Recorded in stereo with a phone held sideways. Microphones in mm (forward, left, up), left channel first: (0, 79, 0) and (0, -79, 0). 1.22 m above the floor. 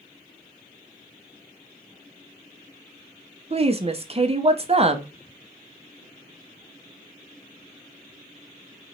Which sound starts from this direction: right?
A woman speaking, at 3.5 s.